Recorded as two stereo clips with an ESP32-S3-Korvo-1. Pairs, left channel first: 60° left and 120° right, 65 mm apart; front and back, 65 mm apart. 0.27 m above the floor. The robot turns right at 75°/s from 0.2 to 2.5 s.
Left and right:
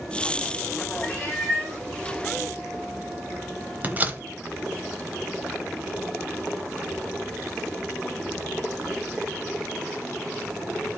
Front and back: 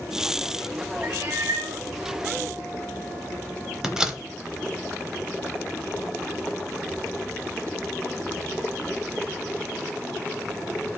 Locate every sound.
1.0 s a cat meowing: 135° left, 1.7 m; by 1.8 s 165° right, 1.7 m
3.8 s a door slam: 110° right, 0.8 m